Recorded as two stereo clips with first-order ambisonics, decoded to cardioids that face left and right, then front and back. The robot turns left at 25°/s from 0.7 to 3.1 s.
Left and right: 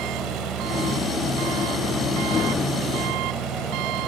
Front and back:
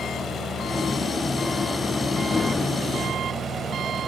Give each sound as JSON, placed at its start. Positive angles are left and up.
{"t": 0.0, "sound": "an engine running", "azimuth_deg": -60}